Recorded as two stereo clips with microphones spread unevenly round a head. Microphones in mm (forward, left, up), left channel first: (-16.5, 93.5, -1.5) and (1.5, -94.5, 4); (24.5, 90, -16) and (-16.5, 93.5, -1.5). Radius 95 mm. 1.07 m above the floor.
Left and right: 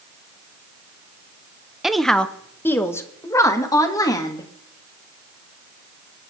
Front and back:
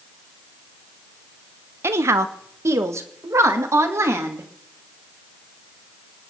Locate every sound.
1.8 s a woman speaking: 175° right, 0.8 m; by 4.5 s 165° left, 2 m